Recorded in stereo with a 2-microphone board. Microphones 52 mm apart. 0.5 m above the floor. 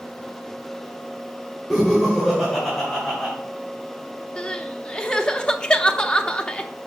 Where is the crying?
20° left (ahead or behind), 0.6 m.